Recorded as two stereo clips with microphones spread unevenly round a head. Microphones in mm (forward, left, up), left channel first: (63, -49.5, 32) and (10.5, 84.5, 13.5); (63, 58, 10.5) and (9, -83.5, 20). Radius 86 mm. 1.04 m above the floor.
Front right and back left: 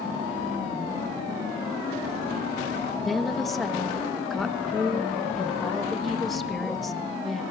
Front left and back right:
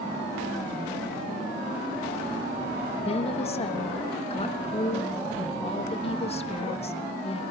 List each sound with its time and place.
3.0 s a woman speaking: 20° left, 1.2 m